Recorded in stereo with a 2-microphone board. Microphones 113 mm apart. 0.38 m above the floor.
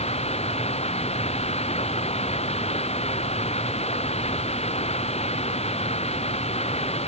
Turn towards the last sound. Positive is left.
turn(degrees=70)  # may be behind; listen again after turning